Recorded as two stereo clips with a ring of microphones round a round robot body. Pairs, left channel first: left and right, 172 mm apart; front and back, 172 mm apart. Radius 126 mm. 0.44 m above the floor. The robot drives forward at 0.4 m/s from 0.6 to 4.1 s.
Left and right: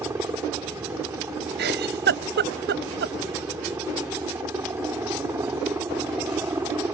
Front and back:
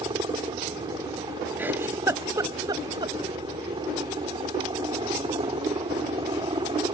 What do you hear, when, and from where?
0.0 s a helicopter: 150° right
1.6 s a giggle: 100° right; by 3.1 s 110° right